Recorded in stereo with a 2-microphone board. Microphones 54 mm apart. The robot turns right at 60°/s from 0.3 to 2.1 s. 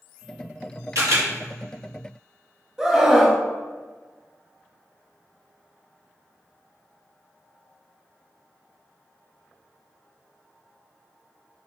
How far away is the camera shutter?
About 1.8 m.